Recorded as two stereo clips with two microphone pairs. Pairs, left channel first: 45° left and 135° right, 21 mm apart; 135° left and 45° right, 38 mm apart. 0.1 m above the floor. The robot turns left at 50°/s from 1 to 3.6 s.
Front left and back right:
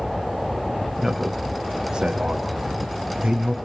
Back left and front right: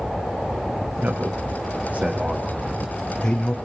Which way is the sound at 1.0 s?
40° right.